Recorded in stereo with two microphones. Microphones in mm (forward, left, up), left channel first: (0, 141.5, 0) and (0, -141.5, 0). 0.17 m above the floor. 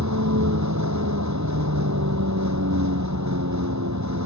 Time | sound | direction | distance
0.0 | a vehicle | 80° right | ?